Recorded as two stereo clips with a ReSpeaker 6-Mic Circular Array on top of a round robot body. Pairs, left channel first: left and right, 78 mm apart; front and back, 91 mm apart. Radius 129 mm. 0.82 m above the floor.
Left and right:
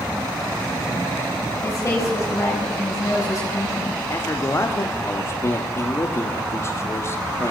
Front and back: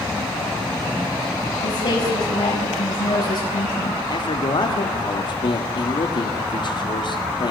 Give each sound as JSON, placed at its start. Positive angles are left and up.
{"t": 1.6, "sound": "a woman speaking", "azimuth_deg": 25, "distance_m": 6.0}
{"t": 4.1, "sound": "a man speaking", "azimuth_deg": 35, "distance_m": 2.0}